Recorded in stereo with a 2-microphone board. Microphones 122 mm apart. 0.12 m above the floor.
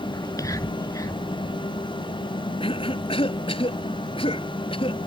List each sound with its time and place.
0.1 s whispering: 30° left (ahead or behind)
2.6 s a cough: 50° left (ahead or behind)